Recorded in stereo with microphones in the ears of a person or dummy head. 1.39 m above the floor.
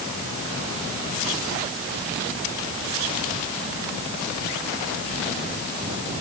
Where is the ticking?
No ticking in this recording.